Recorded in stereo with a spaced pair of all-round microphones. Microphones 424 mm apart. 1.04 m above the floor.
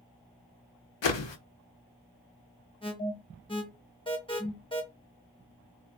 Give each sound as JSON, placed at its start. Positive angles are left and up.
{"t": 1.0, "sound": "a whoosh", "side_deg": 75, "distance_m": 0.6}
{"t": 2.8, "sound": "an alarm", "side_deg": 10, "distance_m": 0.8}